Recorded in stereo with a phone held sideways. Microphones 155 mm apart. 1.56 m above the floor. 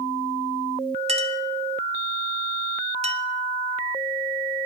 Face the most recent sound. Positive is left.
turn(degrees=-40)  # may be behind; listen again after turning